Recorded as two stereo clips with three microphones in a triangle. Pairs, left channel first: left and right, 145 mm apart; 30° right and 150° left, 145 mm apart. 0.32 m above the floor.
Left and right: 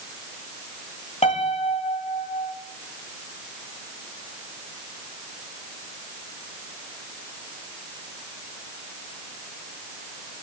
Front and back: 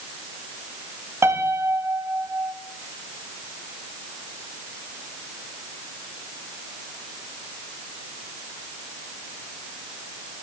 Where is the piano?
85° left, 1.2 m.